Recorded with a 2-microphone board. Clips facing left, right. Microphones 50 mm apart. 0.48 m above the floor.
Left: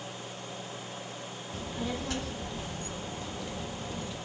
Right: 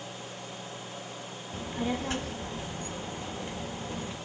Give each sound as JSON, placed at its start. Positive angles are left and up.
{"t": 1.5, "sound": "a child speaking", "side_deg": -30, "distance_m": 0.6}